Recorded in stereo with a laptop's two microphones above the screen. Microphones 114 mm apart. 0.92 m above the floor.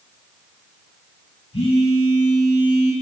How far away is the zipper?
I don't hear a zipper.